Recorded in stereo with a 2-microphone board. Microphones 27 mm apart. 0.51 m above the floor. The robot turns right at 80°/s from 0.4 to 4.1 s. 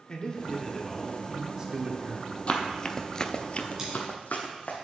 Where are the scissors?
20° right (ahead or behind), 3.5 m; by 3.9 s 30° right (ahead or behind), 3.5 m.